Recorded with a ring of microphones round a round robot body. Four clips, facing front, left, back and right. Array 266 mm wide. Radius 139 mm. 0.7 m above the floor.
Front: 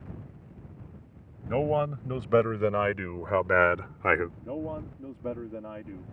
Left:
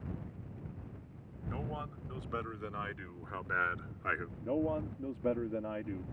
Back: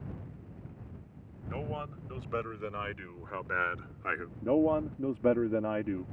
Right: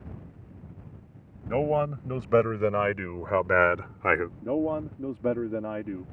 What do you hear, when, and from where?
1.4 s a man speaking: 55° right; by 4.3 s 45° right
4.4 s a man speaking: 145° right